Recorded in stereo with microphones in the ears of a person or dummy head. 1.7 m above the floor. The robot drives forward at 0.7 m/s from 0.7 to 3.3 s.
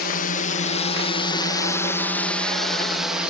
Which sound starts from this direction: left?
A drone, at 0.0 s.